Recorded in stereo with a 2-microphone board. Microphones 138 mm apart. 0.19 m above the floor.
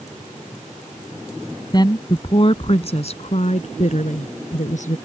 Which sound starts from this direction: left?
A woman speaking, at 1.7 s.